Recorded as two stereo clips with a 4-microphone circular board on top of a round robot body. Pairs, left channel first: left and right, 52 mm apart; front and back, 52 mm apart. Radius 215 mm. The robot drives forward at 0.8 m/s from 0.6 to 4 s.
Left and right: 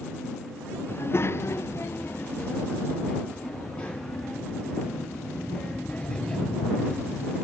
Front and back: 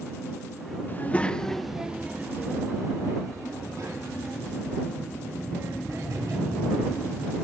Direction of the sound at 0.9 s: 50° left.